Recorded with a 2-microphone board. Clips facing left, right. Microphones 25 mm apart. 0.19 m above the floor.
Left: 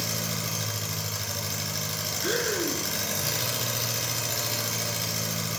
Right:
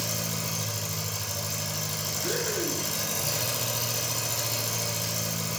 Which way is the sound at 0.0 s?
40° left (ahead or behind).